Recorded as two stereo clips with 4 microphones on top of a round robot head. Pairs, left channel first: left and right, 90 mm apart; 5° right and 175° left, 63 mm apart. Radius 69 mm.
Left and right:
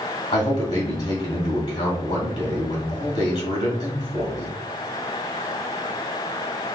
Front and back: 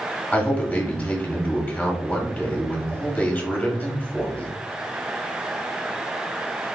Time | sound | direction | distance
0.3 | a man speaking | 65° left | 1.9 m